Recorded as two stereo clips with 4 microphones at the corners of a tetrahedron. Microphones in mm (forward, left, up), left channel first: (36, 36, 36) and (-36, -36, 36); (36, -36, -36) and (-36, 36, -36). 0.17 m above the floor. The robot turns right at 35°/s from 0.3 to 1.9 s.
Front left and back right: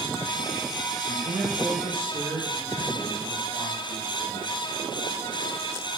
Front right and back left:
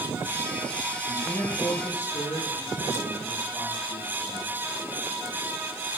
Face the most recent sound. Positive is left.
turn(degrees=-95)